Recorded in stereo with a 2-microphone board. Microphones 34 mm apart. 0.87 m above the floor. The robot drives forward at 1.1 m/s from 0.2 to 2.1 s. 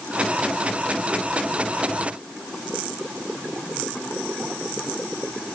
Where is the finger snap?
No finger snap in this recording.